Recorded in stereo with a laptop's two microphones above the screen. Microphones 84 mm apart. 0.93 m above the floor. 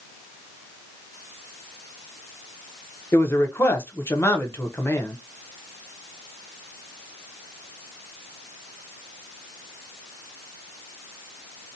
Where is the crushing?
No crushing in this recording.